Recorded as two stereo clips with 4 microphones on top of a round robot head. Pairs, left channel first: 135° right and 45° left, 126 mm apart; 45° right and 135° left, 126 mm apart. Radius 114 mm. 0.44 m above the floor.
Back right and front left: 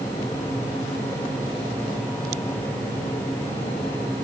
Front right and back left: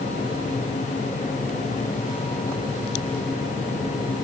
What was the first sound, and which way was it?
Only background noise.